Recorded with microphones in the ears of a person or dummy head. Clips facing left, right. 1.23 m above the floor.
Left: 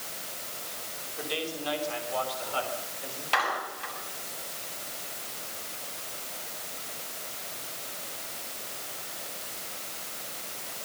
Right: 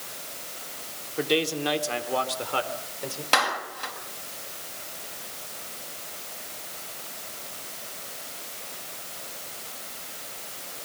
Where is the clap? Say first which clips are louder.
Right 3 dB; 65° right (ahead or behind), 6.5 m.